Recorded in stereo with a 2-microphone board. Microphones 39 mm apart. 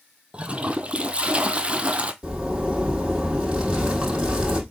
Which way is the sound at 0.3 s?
30° right (ahead or behind).